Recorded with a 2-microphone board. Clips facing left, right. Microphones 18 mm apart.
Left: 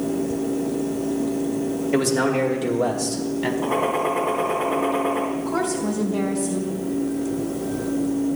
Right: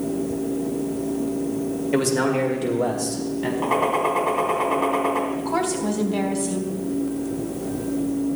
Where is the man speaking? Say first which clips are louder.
Even; 10° right (ahead or behind), 1.9 m; by 3.5 s 20° left (ahead or behind), 1.8 m.